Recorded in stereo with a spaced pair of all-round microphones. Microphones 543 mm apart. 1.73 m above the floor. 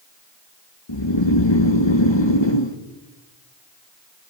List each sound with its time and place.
0.9 s snoring: 50° left (ahead or behind), 1.6 m